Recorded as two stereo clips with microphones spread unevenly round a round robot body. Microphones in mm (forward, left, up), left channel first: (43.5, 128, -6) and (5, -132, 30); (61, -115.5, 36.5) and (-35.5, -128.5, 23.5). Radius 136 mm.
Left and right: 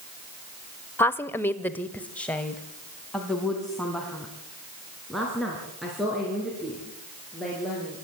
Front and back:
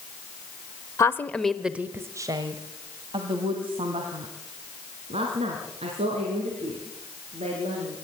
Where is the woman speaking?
35° left, 0.9 m; by 8.0 s 170° left, 6 m.